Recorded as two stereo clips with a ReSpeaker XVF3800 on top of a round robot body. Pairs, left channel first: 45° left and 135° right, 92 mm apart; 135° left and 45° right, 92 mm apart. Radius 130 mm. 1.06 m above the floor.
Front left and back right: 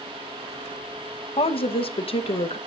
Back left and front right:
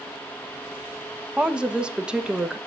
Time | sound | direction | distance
1.4 | a woman speaking | 35° left | 1.2 m